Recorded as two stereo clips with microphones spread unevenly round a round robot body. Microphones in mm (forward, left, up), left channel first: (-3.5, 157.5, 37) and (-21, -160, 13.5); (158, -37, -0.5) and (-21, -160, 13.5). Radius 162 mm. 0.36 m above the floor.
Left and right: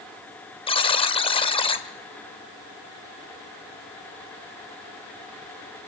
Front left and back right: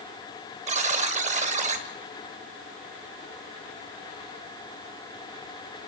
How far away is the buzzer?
About 1.3 m.